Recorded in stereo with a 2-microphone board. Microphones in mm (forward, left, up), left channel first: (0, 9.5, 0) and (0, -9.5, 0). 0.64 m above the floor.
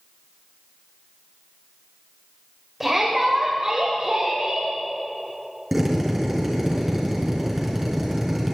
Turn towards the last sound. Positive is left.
turn(degrees=-10)  # may be behind; listen again after turning